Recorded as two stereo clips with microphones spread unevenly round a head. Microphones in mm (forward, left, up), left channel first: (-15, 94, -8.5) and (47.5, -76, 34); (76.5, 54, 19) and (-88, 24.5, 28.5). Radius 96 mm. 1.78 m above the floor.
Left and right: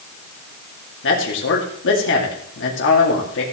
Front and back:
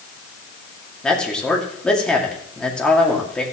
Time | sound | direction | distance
1.0 | a man speaking | 95° left | 2.5 m